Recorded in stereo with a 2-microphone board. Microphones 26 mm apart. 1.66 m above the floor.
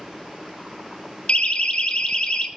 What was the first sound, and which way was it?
A siren, 45° left (ahead or behind).